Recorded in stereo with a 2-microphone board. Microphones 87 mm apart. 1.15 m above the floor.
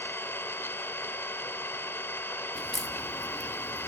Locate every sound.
0.0 s an engine running: 25° left (ahead or behind), 1.2 m
2.5 s a crack: 5° left (ahead or behind), 1.9 m